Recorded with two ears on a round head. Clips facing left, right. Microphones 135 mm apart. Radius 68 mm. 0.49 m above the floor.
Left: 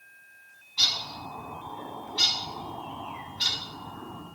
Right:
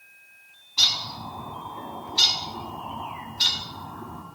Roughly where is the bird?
Right.